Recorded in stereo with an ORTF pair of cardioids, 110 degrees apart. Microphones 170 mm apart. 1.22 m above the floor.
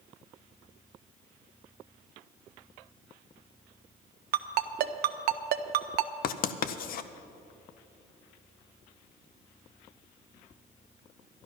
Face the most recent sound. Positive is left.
turn(degrees=60)